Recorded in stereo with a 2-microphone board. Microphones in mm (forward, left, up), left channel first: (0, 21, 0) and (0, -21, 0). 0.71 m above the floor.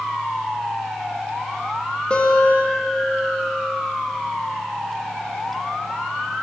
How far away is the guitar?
About 1.2 m.